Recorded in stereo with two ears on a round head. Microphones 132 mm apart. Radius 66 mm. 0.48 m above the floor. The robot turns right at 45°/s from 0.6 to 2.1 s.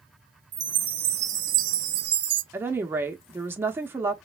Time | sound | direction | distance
0.5 | a chime | 150° right | 0.7 m
2.5 | a woman speaking | 15° right (ahead or behind) | 0.7 m